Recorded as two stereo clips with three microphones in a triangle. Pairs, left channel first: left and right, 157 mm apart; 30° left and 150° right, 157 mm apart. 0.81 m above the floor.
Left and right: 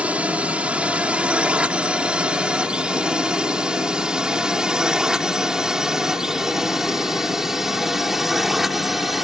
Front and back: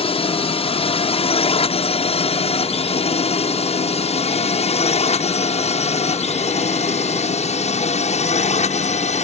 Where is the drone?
10° right; by 9.2 s straight ahead.